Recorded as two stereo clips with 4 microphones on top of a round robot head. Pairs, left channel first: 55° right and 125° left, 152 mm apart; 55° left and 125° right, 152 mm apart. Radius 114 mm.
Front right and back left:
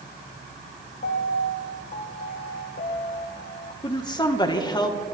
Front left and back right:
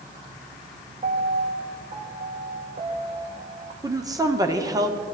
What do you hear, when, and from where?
1.0 s a piano: 80° right, 1.4 m
3.8 s a woman speaking: 85° right, 1.5 m